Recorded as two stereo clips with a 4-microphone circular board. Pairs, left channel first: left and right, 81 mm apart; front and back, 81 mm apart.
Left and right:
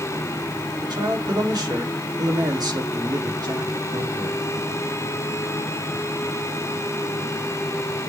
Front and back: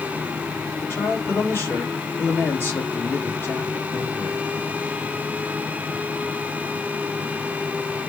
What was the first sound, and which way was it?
A man speaking, 60° right.